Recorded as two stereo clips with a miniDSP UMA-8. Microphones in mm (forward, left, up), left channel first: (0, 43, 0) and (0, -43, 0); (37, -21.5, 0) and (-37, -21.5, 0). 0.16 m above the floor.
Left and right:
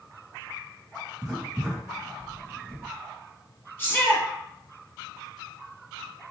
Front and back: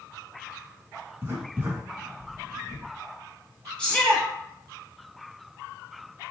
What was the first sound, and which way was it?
Writing, 160° right.